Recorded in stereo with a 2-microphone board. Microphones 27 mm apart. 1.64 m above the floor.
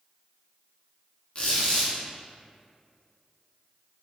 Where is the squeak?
40° left (ahead or behind), 0.6 m.